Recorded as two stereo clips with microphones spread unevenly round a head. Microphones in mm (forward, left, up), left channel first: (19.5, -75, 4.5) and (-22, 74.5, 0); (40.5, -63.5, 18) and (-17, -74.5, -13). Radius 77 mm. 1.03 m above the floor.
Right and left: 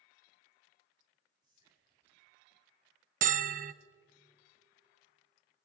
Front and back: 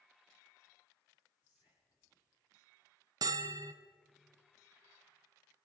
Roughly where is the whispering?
Ahead left.